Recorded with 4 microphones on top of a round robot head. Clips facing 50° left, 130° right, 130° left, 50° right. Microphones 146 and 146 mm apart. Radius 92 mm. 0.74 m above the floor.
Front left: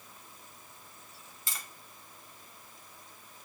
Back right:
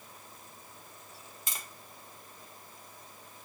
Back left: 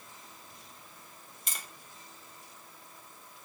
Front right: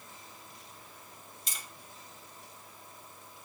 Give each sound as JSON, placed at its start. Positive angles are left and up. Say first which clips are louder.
{"t": 1.5, "sound": "tapping", "louder": "even, back left 3 dB", "azimuth_deg": 160, "distance_m": 1.7}